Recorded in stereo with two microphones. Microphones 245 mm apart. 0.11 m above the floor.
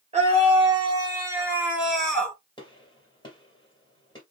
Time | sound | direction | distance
0.1 | a scream | 25° right (ahead or behind) | 2.5 m
2.6 | a gunshot | 15° left (ahead or behind) | 2.5 m